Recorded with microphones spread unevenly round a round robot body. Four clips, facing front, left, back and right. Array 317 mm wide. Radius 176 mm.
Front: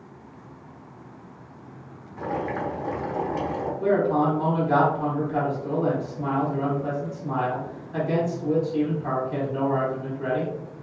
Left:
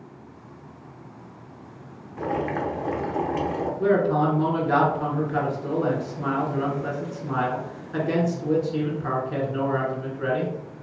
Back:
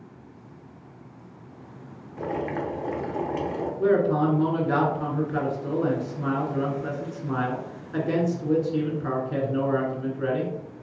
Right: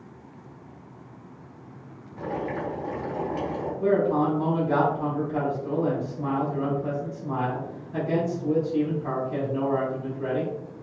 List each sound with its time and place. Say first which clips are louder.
2.2 s boiling: left 4 dB, front 1 dB; 85° left, 0.9 m
3.8 s a man speaking: left 1 dB, even; 120° left, 1.8 m